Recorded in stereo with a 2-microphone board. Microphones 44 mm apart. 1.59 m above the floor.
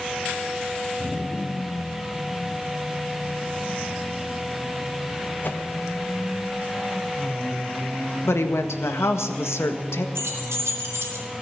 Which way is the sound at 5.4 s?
50° left (ahead or behind).